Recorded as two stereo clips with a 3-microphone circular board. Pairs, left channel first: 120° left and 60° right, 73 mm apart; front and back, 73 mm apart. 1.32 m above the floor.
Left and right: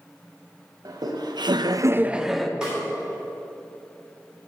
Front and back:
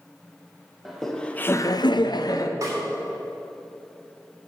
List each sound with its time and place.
0.8 s laughter: 90° right, 1.1 m; by 2.5 s 35° left, 0.9 m
2.6 s a snare drum: 140° right, 3.5 m